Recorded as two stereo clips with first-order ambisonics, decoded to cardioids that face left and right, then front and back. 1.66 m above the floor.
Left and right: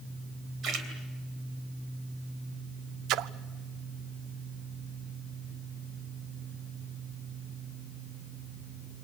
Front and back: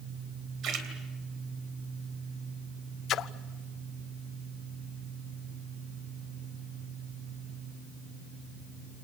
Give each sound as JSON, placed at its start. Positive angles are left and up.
{"t": 0.6, "sound": "a splash", "azimuth_deg": -140, "distance_m": 3.0}
{"t": 3.1, "sound": "a splash", "azimuth_deg": -50, "distance_m": 0.6}